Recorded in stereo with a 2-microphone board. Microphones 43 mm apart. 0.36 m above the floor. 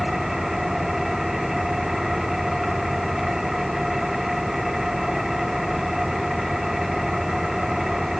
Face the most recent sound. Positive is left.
turn(degrees=-5)  # may be behind; listen again after turning